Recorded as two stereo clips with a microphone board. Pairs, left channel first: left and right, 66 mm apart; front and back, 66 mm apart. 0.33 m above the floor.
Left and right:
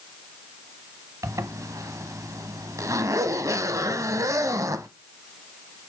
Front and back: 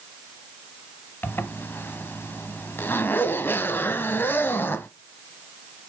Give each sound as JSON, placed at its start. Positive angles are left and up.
{"t": 1.2, "sound": "a zipper", "azimuth_deg": -55, "distance_m": 0.9}